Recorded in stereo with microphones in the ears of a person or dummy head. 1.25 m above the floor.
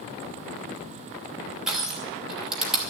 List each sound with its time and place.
1.7 s crushing: 5° right (ahead or behind), 2.5 m